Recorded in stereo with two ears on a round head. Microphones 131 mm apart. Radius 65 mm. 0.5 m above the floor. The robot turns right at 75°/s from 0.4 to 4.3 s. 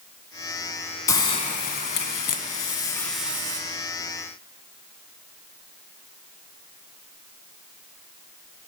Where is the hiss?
20° left, 0.8 m; by 3.6 s 150° right, 0.8 m.